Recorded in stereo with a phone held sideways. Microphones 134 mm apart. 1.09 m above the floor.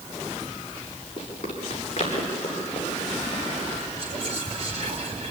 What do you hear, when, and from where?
1.2 s running footsteps: 45° left (ahead or behind), 9 m; by 3.8 s 50° left (ahead or behind), 12.5 m
4.0 s whispering: 50° right (ahead or behind), 4 m